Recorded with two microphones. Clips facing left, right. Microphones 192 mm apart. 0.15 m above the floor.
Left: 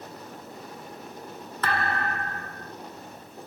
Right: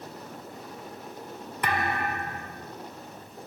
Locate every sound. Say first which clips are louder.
1.6 s a thud: even; 15° right (ahead or behind), 0.7 m